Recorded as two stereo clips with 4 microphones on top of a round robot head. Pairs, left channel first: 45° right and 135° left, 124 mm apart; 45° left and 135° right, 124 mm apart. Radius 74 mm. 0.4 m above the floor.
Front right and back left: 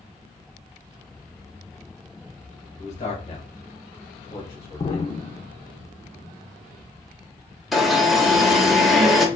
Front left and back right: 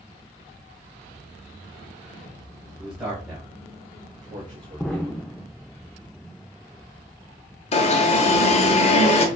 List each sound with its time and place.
2.8 s a man speaking: 60° right, 2.5 m; by 5.2 s 115° right, 2 m
4.8 s an explosion: 35° right, 0.5 m
7.7 s an alarm: 45° left, 1.1 m